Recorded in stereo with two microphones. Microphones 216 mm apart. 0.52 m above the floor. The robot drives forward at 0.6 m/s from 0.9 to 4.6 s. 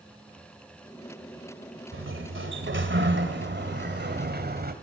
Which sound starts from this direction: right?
A sliding door, at 1.9 s.